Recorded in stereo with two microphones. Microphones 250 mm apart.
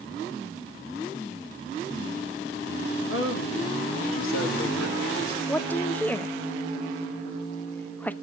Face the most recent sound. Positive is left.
turn(degrees=5)  # may be behind; listen again after turning